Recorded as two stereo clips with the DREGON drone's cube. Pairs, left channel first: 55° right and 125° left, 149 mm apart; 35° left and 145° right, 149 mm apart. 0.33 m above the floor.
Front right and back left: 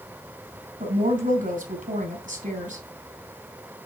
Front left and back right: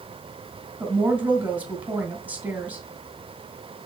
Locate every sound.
0.8 s a woman speaking: 135° left, 3 m